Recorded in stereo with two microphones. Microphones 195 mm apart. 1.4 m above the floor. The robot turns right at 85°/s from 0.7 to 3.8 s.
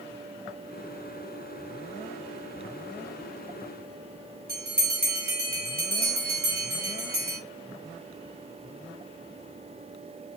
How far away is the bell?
About 1.0 m.